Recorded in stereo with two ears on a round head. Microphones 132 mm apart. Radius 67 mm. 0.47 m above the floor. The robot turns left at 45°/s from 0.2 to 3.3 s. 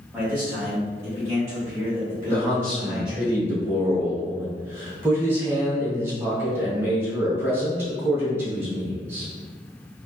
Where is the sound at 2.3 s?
20° left, 1.0 m; by 9.3 s 25° right, 1.0 m.